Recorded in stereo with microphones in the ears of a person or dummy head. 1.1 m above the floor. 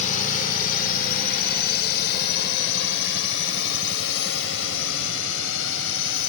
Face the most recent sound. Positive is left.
turn(degrees=75)  # may be behind; listen again after turning